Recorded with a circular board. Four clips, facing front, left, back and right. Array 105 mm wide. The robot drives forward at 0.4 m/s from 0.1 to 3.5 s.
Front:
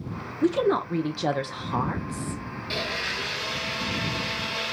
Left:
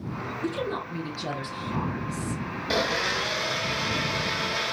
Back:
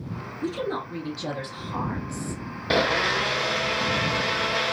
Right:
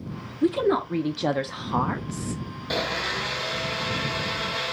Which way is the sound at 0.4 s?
40° right.